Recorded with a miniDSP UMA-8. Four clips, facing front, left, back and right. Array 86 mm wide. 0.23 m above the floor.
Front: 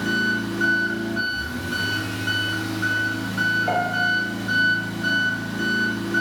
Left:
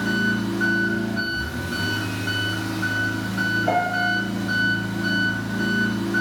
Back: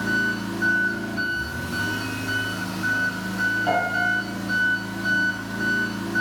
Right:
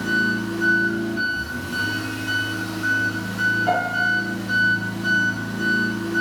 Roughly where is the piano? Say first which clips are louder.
Even, even; behind.